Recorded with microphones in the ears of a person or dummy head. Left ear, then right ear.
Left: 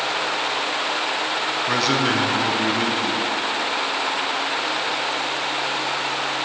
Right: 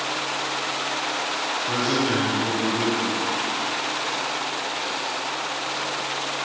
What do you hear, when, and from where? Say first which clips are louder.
1.7 s a man speaking: left 3 dB; 60° left (ahead or behind), 0.8 m